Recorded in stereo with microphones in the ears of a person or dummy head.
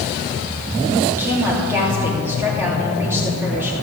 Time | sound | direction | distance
1.1 | a woman speaking | 15° right (ahead or behind) | 3 m